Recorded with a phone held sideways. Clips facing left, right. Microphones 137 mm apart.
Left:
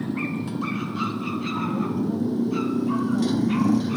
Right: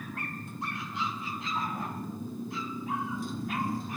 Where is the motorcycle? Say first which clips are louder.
Left 13 dB; 90° left; by 4.0 s 85° left.